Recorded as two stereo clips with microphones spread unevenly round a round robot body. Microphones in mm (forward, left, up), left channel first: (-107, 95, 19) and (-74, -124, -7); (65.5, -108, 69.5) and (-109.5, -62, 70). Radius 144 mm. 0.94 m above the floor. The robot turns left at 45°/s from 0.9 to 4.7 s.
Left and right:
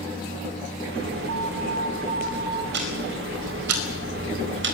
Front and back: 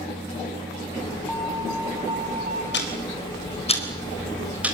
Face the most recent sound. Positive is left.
turn(degrees=-115)